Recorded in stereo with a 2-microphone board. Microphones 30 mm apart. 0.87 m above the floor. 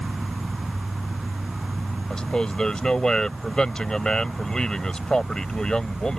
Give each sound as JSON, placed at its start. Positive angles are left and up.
{"t": 0.0, "sound": "an insect", "side_deg": -30}
{"t": 2.1, "sound": "a man speaking", "side_deg": 30}